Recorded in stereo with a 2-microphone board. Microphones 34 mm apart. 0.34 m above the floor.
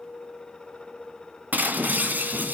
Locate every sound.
1.5 s breaking glass: 60° right (ahead or behind), 2 m